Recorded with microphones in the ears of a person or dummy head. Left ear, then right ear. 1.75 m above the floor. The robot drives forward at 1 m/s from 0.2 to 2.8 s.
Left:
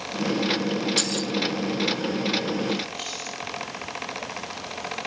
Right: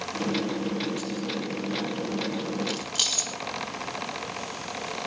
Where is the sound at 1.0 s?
55° left (ahead or behind), 1.6 m; by 1.3 s 60° left (ahead or behind), 1.4 m.